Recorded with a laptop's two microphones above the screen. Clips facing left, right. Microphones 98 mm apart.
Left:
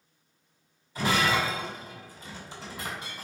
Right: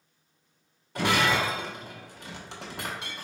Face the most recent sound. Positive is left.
turn(degrees=-70)  # may be behind; listen again after turning